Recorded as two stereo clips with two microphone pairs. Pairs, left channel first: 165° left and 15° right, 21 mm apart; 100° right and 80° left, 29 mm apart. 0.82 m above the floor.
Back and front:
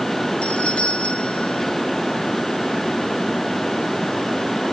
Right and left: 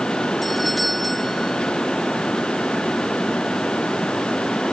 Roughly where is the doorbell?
Behind.